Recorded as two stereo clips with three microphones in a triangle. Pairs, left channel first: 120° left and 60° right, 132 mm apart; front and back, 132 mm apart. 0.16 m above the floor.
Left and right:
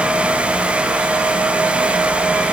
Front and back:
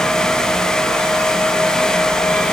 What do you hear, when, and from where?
Only background noise.